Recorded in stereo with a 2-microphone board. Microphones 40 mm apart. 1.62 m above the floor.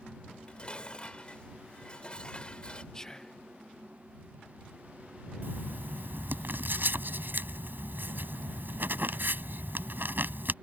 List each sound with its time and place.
0.3 s dishes clattering: 30° left (ahead or behind)
2.9 s whispering: 20° left (ahead or behind)
5.4 s writing: 60° right (ahead or behind)